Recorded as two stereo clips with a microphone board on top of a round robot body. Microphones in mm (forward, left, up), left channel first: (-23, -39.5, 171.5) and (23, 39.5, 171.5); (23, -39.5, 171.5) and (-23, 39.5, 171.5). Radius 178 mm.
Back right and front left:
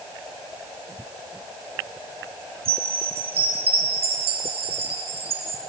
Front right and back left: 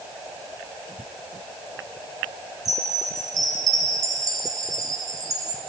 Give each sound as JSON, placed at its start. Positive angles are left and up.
{"t": 2.6, "sound": "a chime", "azimuth_deg": 65, "distance_m": 2.5}